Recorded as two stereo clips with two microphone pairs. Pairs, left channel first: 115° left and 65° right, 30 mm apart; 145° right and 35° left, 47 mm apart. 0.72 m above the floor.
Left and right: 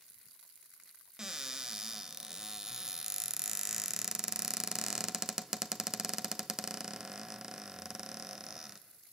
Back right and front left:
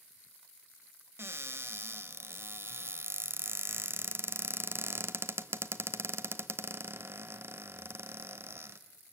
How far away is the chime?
I don't hear a chime.